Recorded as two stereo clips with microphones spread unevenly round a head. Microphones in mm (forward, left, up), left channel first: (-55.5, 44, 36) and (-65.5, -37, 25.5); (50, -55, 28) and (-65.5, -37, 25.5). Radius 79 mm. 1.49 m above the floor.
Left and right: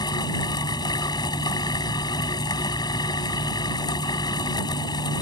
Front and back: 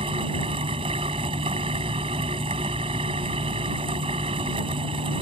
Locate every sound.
0.0 s a fan: 110° left